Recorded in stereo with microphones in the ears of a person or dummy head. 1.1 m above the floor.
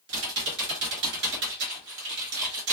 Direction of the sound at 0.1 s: 55° right (ahead or behind).